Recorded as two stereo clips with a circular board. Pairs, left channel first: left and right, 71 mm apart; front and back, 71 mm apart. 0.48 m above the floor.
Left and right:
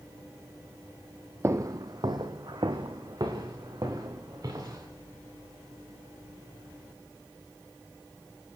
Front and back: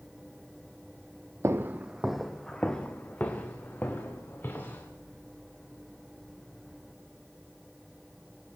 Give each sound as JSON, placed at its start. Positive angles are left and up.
{"t": 1.4, "sound": "footsteps", "azimuth_deg": -135, "distance_m": 0.9}